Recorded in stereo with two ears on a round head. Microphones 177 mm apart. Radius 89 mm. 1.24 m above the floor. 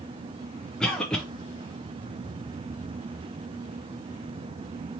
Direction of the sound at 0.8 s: 5° left (ahead or behind).